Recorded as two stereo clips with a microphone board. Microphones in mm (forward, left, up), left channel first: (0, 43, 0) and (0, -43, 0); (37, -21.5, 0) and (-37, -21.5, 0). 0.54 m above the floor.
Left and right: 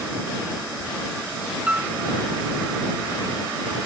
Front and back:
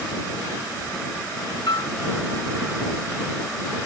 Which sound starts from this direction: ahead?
A piano, at 1.7 s.